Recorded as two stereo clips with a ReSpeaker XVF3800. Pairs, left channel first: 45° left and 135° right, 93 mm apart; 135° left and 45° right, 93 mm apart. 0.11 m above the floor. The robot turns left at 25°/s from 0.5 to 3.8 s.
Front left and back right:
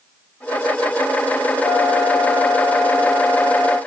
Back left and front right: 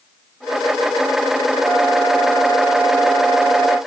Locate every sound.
1.6 s a flute: 25° right, 2.0 m; by 3.8 s 80° right, 2.0 m